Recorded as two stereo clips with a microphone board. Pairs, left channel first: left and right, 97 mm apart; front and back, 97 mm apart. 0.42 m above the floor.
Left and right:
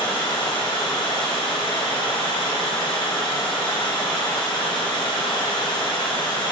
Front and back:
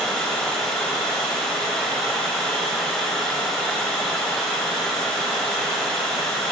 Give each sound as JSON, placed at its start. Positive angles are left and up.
{"t": 0.0, "sound": "running water", "azimuth_deg": 85, "distance_m": 1.9}